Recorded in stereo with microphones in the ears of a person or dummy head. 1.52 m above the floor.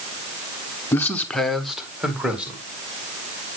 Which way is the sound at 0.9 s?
15° left (ahead or behind).